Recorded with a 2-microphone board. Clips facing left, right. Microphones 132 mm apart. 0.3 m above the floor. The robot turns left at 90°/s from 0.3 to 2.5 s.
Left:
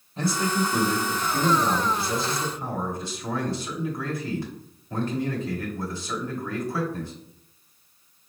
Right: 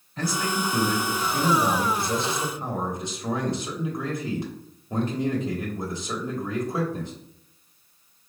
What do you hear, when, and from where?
0.2 s a man speaking: 25° left (ahead or behind), 1.0 m; by 7.1 s 20° right (ahead or behind), 1.0 m